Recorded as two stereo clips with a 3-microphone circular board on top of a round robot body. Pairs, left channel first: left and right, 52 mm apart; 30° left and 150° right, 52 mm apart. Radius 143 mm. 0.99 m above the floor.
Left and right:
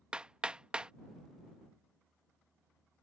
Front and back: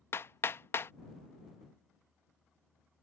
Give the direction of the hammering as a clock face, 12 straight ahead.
1 o'clock.